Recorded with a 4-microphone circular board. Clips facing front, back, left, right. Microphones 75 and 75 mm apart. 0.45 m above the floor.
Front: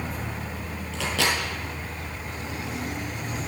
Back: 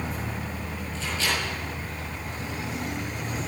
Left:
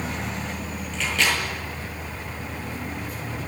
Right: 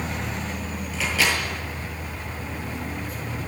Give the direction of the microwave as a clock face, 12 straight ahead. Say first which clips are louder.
Front 4 dB, even; 12 o'clock.